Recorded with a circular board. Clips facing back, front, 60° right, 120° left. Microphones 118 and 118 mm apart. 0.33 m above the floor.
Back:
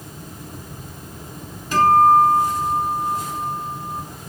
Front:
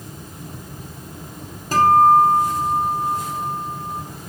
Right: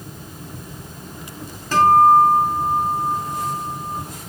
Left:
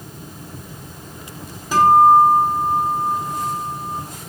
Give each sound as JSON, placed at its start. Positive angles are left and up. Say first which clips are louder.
{"t": 1.7, "sound": "a guitar", "louder": "even, left 1 dB", "azimuth_deg": 45, "distance_m": 2.0}